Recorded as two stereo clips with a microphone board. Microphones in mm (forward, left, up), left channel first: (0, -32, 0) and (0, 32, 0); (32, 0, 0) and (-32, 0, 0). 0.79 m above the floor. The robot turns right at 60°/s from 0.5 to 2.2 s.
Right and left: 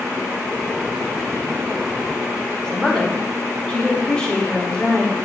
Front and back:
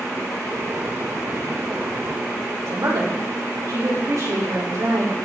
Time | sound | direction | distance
2.6 | a woman speaking | 165° right | 2.5 m